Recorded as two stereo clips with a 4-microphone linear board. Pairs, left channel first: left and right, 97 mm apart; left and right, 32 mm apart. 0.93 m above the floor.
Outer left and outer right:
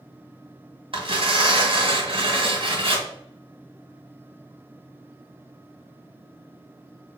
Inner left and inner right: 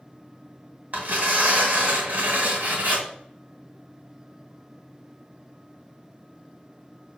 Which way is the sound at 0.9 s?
65° right (ahead or behind).